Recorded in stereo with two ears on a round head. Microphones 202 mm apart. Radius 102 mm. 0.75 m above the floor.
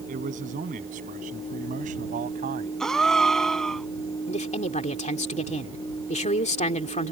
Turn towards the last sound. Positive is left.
turn(degrees=30)  # may be behind; listen again after turning